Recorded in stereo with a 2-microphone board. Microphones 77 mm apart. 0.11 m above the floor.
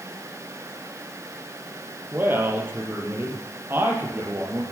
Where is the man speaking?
30° right (ahead or behind), 3 m.